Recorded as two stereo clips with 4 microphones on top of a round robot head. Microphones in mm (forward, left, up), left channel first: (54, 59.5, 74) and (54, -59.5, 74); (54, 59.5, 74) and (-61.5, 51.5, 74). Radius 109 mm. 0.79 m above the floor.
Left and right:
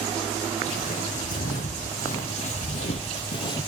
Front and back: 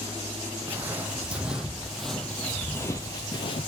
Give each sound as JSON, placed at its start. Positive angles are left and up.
{"t": 0.7, "sound": "footsteps", "azimuth_deg": 110, "distance_m": 2.5}